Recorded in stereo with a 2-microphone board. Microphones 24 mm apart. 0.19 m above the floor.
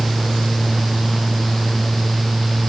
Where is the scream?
No scream in this recording.